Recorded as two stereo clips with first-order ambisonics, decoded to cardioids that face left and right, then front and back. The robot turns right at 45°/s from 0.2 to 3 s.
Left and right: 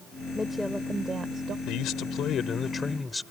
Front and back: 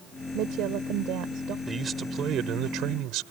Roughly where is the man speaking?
Left.